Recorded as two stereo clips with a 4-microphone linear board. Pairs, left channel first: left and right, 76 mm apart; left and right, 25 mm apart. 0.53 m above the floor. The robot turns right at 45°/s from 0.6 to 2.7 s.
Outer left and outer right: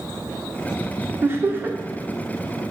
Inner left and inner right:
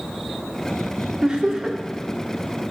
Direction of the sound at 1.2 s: 35° right (ahead or behind).